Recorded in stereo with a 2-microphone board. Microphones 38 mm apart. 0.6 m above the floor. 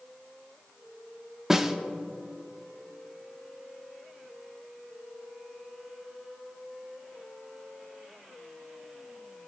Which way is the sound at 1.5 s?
10° right (ahead or behind).